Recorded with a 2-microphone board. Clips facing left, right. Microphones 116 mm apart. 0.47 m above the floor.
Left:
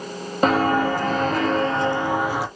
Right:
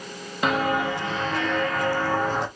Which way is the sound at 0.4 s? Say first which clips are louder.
Left 5 dB; 40° left (ahead or behind).